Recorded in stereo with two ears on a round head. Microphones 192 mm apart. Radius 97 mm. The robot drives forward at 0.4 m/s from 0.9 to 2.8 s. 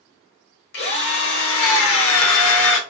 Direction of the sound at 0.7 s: 50° left (ahead or behind).